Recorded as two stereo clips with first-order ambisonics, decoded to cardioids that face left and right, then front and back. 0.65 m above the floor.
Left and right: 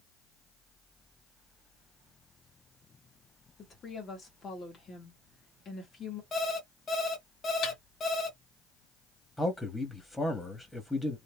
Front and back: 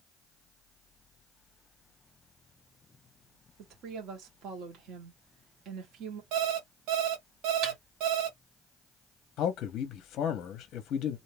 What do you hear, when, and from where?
3.6 s a woman speaking: 150° left, 1.3 m
6.3 s an alarm clock: 155° left, 1.2 m
7.6 s a snare drum: 135° left, 2.5 m
9.4 s a man speaking: 15° left, 0.7 m